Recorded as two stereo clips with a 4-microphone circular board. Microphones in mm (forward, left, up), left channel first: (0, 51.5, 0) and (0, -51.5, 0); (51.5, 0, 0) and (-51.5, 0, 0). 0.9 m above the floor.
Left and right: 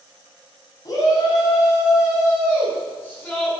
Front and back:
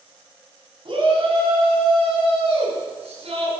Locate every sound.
0.8 s a shout: 145° left, 7 m; by 3.5 s 165° left, 7.5 m